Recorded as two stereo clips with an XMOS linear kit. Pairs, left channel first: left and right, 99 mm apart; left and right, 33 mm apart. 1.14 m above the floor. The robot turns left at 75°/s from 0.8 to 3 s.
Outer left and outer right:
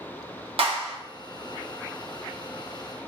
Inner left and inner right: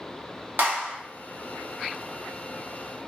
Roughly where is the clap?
Right.